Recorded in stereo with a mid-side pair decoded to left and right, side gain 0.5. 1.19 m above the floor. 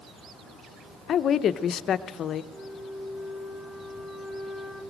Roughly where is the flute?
Ahead.